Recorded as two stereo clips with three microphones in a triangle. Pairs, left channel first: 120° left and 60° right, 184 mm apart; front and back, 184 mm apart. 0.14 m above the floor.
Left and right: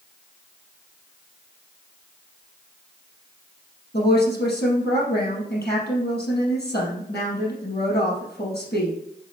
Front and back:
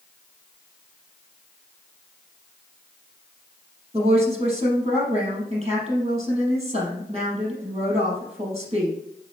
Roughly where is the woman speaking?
Behind left.